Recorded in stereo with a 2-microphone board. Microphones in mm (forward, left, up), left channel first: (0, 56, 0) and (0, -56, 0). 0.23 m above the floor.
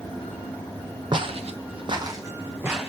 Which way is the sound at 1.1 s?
45° right (ahead or behind).